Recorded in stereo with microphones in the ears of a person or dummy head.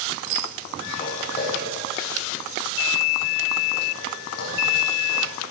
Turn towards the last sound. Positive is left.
turn(degrees=60)  # may be behind; listen again after turning